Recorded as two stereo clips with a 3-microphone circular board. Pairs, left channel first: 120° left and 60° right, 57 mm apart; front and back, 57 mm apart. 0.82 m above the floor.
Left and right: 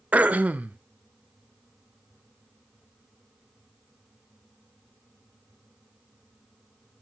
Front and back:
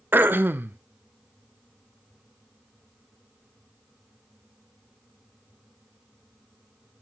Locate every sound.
0.1 s throat clearing: 125° right, 0.8 m